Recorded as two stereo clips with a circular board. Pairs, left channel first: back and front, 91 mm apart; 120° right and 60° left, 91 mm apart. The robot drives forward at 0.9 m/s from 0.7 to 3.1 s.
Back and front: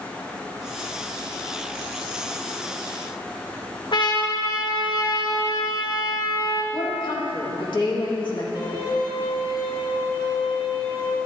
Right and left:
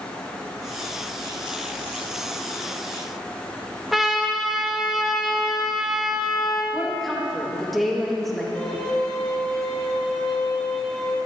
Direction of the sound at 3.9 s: 145° left.